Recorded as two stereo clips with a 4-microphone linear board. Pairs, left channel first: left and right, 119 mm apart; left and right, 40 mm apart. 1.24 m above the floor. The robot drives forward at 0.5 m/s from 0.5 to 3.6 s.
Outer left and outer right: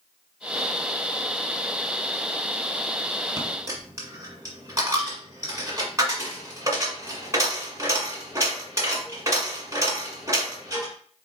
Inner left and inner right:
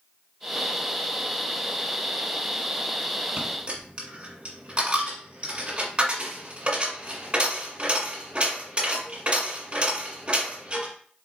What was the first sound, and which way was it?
A dropped coin, 30° right (ahead or behind).